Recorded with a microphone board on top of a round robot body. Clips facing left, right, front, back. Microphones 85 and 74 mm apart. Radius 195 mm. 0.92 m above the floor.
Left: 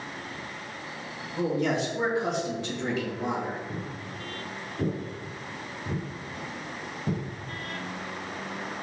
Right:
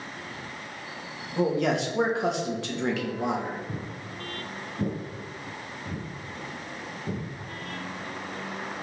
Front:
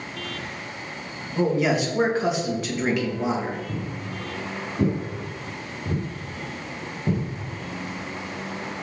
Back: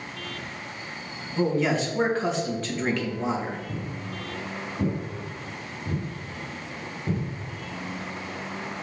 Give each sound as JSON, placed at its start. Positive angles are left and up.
{"t": 1.4, "sound": "a man speaking", "azimuth_deg": -80, "distance_m": 2.0}
{"t": 3.7, "sound": "footsteps", "azimuth_deg": -75, "distance_m": 1.0}